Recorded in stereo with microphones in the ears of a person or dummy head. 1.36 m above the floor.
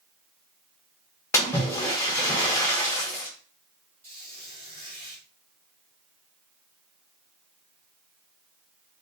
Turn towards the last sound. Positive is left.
turn(degrees=-40)  # may be behind; listen again after turning